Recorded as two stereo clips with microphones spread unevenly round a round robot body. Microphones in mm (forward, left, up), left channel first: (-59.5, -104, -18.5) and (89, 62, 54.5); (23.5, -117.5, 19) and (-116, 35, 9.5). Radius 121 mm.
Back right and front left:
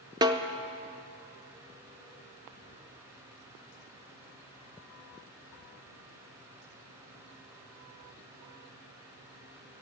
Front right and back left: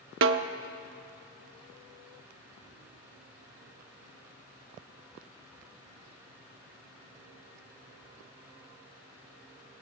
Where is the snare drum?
130° left, 0.6 m.